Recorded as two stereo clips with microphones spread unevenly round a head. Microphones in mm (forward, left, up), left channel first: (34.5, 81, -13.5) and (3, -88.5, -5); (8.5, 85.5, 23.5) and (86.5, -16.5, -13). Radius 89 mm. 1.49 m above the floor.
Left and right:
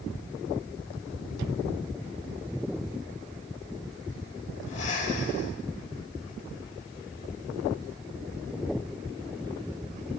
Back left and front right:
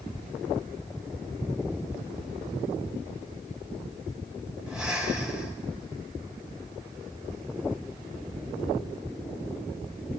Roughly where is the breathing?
Ahead left.